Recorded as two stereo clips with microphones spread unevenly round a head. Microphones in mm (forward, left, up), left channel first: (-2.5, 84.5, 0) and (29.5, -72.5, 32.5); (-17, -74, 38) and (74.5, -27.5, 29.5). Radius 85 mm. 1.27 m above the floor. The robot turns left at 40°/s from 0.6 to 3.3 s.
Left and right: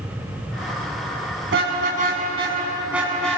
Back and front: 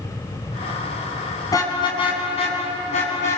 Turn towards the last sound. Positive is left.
turn(degrees=-175)